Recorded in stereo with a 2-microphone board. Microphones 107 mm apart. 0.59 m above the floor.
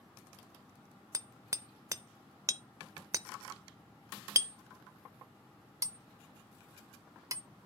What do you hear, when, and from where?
1.1 s hammering: 30° right (ahead or behind), 0.5 m